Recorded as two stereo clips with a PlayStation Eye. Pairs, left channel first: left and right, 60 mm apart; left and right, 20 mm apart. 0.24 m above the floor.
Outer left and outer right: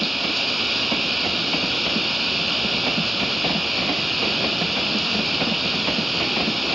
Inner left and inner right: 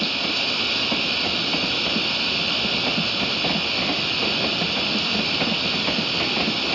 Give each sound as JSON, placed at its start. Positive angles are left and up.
{"t": 0.0, "sound": "running water", "side_deg": 0}